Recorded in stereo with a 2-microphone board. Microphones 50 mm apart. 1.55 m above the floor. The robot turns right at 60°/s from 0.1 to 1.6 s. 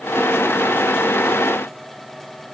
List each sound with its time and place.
Only background noise.